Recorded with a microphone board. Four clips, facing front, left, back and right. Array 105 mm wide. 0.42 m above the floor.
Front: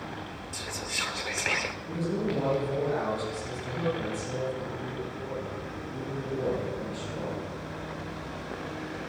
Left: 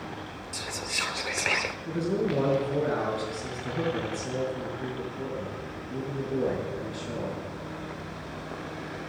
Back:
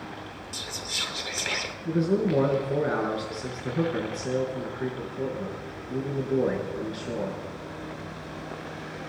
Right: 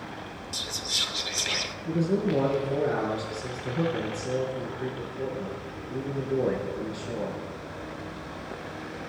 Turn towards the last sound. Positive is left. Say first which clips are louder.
# right 3 dB, back 7 dB
turn(degrees=175)